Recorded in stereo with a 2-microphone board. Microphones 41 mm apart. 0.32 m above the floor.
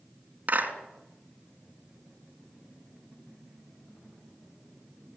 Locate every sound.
0.5 s a clap: 40° right (ahead or behind), 3 m